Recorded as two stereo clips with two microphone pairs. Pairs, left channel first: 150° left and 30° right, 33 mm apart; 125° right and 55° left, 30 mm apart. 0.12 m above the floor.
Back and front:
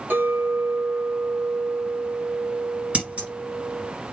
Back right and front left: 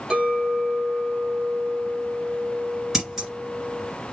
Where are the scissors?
15° right, 2 m.